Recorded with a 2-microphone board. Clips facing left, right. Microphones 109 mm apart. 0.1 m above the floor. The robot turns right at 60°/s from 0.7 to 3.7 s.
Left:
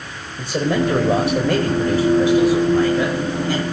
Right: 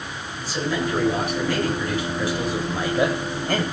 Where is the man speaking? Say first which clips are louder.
Left 6 dB; 65° left, 8 m; by 3.6 s 120° right, 8 m.